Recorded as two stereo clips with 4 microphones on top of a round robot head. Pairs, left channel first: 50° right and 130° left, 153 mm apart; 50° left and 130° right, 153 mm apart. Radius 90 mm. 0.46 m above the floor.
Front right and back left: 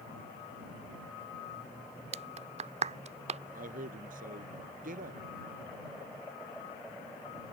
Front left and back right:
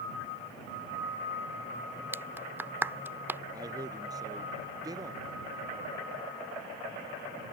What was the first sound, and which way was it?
A clap, 155° left.